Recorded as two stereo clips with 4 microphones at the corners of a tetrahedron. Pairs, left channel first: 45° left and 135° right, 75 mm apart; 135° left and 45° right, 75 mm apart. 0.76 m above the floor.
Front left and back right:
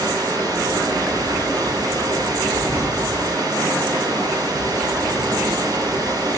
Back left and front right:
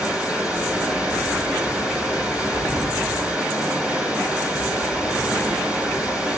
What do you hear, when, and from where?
0.0 s running water: 115° right, 2.5 m